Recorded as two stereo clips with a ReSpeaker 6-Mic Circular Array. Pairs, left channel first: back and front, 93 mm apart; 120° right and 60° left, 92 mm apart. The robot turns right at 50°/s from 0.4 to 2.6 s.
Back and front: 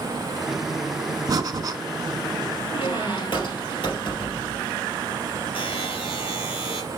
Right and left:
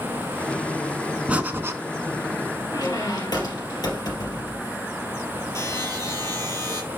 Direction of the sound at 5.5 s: Straight behind.